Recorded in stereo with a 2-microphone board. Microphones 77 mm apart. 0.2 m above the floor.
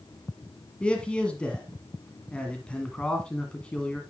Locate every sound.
0.8 s a man speaking: 15° left (ahead or behind), 1.6 m